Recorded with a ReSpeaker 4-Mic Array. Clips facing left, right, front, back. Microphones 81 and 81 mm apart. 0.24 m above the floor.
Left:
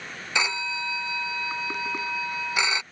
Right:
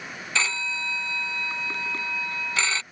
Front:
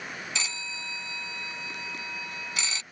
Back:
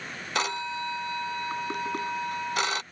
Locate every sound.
0.3 s a phone ringing: 160° left